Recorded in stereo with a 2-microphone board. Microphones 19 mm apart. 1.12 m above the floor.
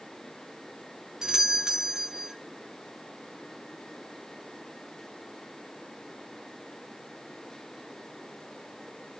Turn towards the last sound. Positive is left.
turn(degrees=-25)  # may be behind; listen again after turning